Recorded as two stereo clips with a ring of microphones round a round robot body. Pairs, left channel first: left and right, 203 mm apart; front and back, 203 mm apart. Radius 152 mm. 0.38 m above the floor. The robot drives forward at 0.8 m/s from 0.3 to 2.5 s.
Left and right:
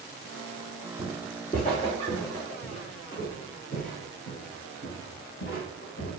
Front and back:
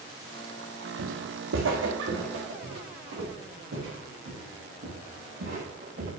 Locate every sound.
1.0 s footsteps: 170° left, 0.8 m; by 6.1 s 145° left, 5 m